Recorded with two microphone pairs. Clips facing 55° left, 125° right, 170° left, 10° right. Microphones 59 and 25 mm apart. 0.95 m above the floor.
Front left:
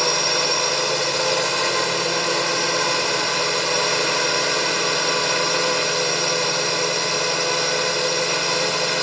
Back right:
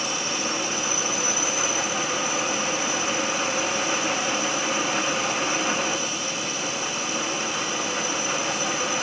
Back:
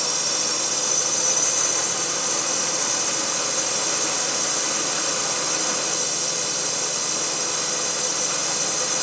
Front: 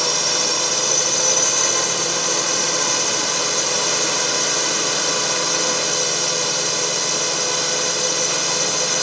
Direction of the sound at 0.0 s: 45° left.